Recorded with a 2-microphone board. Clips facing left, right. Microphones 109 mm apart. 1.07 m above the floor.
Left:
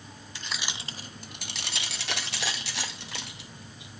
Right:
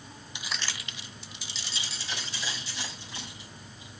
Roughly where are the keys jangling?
Centre.